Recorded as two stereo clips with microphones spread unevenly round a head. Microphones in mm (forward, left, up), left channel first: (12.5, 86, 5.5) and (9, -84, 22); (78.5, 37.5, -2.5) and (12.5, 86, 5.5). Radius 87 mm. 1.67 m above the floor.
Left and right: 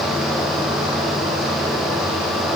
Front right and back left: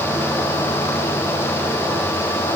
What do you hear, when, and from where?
Only background noise.